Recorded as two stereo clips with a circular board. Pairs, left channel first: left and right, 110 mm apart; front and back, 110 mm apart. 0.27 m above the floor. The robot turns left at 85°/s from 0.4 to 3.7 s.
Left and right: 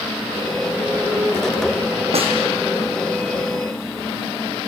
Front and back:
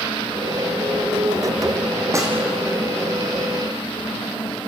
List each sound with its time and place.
2.1 s a snare drum: 115° right, 4.5 m; by 2.4 s 130° right, 4.5 m